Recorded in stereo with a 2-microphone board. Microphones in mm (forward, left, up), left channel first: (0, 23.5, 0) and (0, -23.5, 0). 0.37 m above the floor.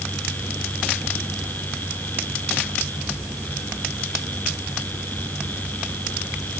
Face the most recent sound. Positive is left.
No sound to turn to.